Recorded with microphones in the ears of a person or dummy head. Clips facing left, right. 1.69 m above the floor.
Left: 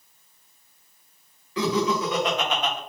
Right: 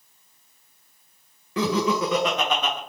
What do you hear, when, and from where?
1.6 s laughter: 45° right (ahead or behind), 0.7 m; by 2.8 s 75° right (ahead or behind), 0.9 m